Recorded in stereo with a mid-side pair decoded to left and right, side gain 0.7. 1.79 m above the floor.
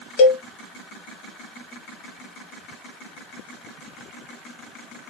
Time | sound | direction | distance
0.2 | a cowbell | 50° left | 0.8 m